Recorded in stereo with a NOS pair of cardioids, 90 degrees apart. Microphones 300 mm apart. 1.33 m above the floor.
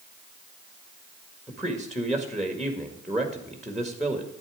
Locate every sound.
1.5 s a man speaking: straight ahead, 1.8 m